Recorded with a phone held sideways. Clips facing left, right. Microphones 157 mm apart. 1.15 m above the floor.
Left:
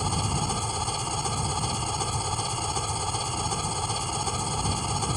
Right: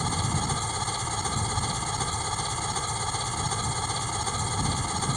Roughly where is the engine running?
Centre.